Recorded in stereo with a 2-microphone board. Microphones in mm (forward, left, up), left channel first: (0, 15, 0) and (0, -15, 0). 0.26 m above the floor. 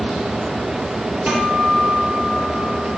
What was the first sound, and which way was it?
A guitar, 60° right (ahead or behind).